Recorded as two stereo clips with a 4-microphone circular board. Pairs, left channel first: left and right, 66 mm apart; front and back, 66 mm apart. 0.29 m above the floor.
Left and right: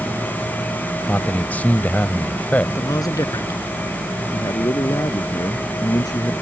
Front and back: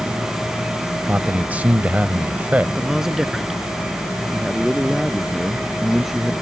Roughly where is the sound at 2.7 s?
Left.